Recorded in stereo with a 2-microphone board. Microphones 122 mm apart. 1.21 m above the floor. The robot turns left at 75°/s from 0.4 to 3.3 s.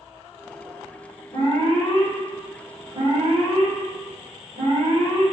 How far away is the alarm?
About 1.9 m.